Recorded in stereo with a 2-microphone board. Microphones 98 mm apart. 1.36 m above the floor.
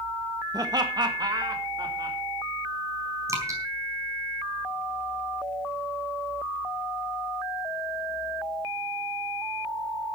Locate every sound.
0.5 s laughter: 45° right (ahead or behind), 1.8 m
3.3 s dripping: 30° right (ahead or behind), 4 m